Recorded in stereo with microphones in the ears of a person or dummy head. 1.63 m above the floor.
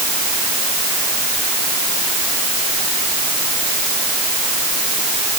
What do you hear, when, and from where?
Only background noise.